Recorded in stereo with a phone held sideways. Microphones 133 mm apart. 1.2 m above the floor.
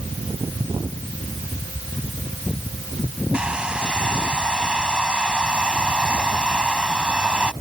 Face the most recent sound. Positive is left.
turn(degrees=-5)  # may be behind; listen again after turning